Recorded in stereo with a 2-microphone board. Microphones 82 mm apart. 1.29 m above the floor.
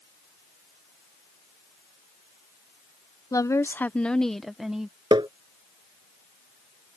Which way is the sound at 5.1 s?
70° right (ahead or behind).